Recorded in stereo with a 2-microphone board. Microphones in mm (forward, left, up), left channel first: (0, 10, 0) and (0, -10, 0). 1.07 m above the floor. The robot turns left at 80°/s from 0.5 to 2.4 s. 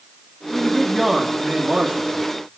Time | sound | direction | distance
0.5 | a man speaking | 35° left | 2.5 m